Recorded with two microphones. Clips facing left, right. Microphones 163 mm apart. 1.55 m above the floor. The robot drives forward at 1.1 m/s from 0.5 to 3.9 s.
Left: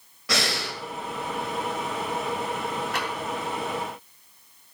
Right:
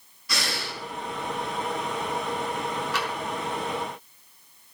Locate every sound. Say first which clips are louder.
0.3 s breathing: left 4 dB; 85° left, 2.5 m; by 0.8 s 80° left, 2.5 m
2.9 s tapping: even; 50° left (ahead or behind), 3.5 m